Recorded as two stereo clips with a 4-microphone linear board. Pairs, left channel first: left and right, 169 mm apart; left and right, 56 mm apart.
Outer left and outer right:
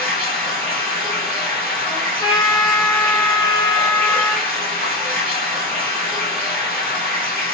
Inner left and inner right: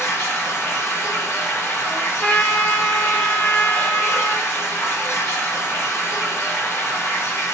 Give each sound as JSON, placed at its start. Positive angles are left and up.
{"t": 0.0, "sound": "running water", "side_deg": 60, "distance_m": 1.4}
{"t": 1.9, "sound": "a trumpet", "side_deg": 25, "distance_m": 0.5}